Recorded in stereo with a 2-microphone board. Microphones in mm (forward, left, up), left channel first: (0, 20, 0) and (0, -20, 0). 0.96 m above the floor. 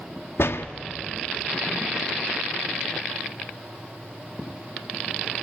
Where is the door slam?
80° left, 0.9 m.